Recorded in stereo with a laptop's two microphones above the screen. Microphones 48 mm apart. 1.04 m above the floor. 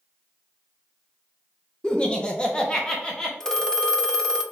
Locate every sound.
1.8 s laughter: 20° left (ahead or behind), 0.7 m
3.4 s a phone ringing: 10° left (ahead or behind), 0.7 m